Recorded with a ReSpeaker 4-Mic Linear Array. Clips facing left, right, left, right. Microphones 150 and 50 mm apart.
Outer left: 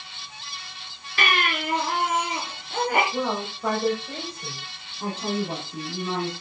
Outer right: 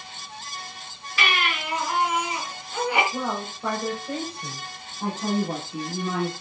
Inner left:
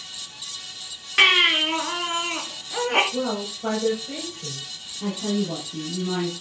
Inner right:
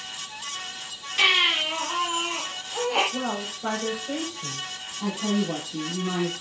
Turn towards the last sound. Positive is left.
turn(degrees=-5)  # may be behind; listen again after turning